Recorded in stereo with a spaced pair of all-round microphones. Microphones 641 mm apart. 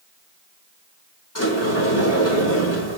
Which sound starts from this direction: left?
A sliding door, at 1.4 s.